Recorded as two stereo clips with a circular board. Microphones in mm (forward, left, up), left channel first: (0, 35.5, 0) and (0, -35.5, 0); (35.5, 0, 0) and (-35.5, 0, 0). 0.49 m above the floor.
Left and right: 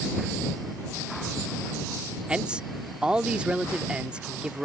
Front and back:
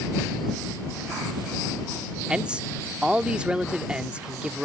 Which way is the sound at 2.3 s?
135° right.